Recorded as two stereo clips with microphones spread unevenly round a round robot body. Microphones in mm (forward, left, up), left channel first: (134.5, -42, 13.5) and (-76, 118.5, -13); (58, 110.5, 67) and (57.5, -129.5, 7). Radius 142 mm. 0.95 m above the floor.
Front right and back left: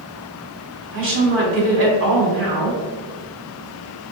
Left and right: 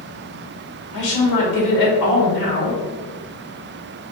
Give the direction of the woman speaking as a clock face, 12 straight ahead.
9 o'clock.